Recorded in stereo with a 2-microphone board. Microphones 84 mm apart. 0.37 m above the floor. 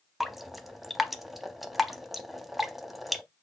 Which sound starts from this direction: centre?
Dripping, at 0.2 s.